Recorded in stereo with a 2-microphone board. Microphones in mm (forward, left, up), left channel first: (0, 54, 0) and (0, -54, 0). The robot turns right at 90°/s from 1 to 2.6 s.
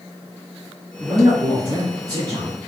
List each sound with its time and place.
1.0 s a man speaking: 150° left, 1.6 m; by 2.6 s 65° right, 1.6 m